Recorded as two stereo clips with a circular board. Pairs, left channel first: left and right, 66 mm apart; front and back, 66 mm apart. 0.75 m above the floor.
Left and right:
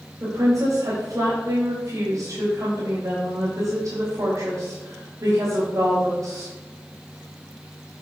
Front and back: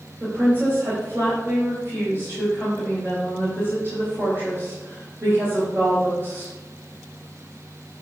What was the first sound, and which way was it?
A woman speaking, 125° right.